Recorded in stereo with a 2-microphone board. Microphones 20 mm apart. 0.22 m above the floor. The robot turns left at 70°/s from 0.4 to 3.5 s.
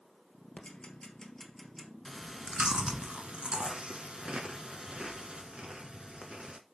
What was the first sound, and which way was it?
Ticking, 80° left.